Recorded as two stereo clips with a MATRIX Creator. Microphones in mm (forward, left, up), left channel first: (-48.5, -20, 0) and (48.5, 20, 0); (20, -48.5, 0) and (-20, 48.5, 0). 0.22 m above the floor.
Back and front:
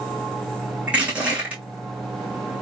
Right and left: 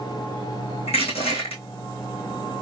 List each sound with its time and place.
0.9 s crushing: 55° right, 2.5 m